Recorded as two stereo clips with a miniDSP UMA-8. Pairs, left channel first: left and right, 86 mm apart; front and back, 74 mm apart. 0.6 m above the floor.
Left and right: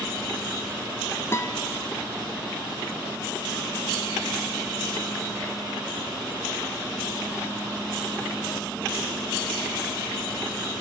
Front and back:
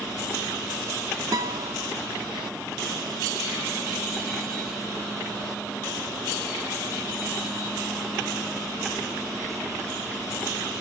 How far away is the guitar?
About 1.2 m.